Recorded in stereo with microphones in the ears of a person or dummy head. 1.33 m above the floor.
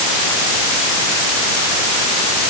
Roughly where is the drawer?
I don't hear a drawer.